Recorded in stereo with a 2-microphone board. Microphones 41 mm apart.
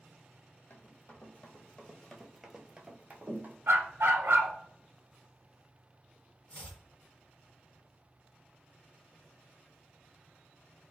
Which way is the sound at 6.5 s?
30° left (ahead or behind).